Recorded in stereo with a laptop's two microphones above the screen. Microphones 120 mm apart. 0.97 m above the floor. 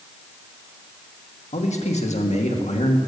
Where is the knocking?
No knocking in this recording.